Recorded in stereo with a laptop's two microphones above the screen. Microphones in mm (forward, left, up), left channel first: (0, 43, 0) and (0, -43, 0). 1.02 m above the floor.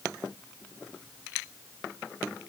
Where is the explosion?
I don't hear an explosion.